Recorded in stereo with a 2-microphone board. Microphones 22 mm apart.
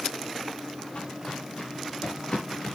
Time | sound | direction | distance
0.9 | footsteps | 45° left (ahead or behind) | 6.5 m